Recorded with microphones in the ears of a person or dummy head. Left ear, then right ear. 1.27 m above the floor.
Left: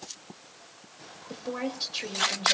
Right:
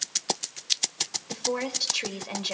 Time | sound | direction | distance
1.3 | a woman speaking | 15° right (ahead or behind) | 2.5 m